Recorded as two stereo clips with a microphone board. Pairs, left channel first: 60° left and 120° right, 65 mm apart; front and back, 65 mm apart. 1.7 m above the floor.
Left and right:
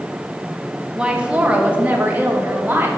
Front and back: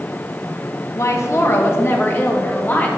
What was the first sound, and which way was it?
A woman speaking, 45° right.